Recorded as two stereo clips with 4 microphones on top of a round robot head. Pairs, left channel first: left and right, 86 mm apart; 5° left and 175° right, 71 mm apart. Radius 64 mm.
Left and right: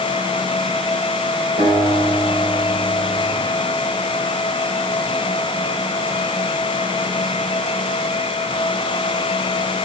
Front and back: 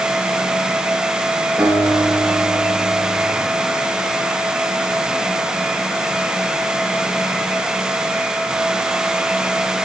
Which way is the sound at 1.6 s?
95° right.